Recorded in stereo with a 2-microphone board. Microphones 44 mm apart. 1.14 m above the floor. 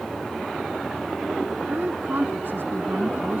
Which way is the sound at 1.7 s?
55° right (ahead or behind).